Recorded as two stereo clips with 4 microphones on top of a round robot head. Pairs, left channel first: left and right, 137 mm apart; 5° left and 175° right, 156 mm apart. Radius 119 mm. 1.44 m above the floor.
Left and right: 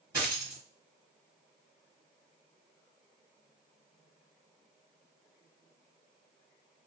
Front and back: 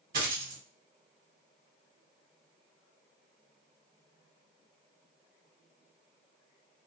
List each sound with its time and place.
0.1 s a dropped coin: 165° right, 1.8 m